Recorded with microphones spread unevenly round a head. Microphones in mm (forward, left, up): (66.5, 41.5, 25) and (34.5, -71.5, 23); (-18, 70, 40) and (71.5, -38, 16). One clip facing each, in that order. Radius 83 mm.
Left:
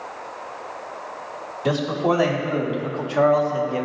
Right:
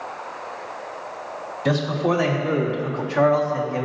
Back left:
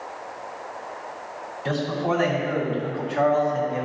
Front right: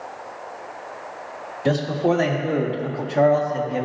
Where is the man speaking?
5° right, 2.5 m; by 3.9 s 5° left, 1.4 m.